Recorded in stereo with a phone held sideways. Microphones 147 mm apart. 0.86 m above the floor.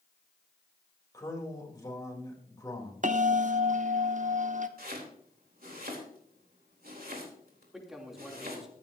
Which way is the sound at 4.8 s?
75° right (ahead or behind).